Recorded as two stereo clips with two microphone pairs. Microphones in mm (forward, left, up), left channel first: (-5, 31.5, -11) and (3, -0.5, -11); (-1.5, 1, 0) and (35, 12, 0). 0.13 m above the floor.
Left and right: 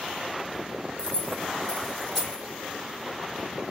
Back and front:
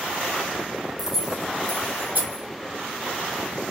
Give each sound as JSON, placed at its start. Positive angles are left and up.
{"t": 1.0, "sound": "keys jangling", "azimuth_deg": 90, "distance_m": 0.9}